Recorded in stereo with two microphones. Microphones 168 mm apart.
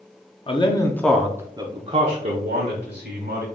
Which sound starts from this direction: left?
A man speaking, at 0.5 s.